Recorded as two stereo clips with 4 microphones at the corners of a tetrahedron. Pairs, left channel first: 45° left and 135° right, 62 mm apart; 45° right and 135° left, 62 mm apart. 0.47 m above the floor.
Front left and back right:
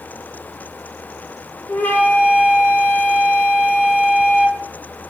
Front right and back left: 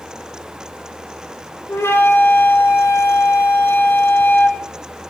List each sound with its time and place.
1.7 s a flute: 5° right, 1.9 m